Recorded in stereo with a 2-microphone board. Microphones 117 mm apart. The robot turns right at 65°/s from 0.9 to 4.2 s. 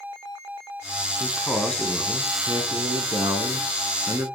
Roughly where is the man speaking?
Behind left.